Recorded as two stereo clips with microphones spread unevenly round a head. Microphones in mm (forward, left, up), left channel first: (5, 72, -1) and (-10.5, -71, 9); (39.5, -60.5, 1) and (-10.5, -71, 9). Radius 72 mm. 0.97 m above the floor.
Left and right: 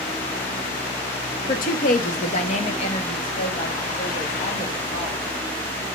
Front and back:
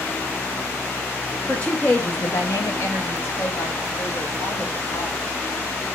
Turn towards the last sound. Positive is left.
turn(degrees=15)